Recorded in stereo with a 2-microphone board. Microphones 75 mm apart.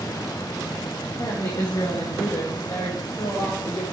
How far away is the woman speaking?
About 8 m.